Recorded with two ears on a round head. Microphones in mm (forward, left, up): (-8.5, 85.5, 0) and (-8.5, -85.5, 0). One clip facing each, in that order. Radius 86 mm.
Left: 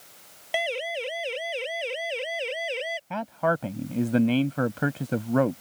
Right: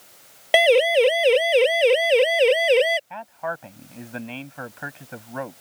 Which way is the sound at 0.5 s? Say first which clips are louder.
Right 14 dB; 70° right (ahead or behind).